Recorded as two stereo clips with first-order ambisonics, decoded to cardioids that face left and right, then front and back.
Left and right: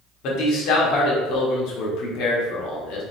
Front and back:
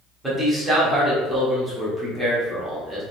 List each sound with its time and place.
0.2 s a man speaking: 100° left, 1.2 m